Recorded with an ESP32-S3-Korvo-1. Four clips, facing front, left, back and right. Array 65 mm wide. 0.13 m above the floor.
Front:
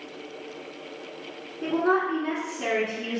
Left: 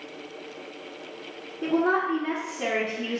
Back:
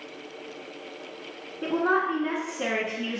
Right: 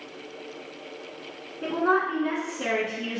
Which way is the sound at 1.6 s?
150° right.